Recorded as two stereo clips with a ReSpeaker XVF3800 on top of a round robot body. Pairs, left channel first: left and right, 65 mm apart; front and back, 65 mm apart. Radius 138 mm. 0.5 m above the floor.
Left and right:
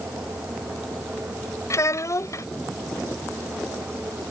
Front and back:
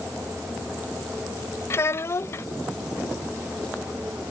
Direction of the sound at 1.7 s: 50° left.